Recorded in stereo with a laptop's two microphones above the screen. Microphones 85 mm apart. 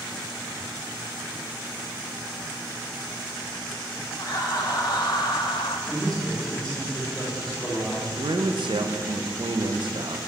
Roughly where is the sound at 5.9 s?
Centre.